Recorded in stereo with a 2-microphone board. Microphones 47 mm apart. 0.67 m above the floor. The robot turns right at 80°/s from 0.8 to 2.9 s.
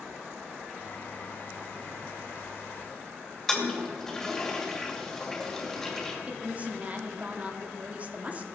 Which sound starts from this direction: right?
A woman speaking, at 6.3 s.